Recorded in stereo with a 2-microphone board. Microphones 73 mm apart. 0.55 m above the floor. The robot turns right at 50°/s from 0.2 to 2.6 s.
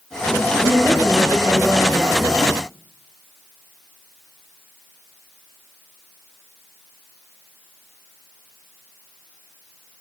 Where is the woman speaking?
135° left, 2.5 m; by 2.6 s 130° right, 2.5 m.